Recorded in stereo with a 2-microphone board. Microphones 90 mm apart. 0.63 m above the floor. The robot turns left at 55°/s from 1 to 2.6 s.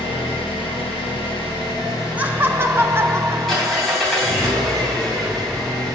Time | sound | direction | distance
0.0 | an engine running | 90° left | 2.5 m
2.2 | laughter | 15° right (ahead or behind) | 0.6 m